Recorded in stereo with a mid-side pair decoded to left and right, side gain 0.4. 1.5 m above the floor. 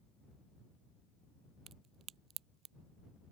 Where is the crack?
65° right.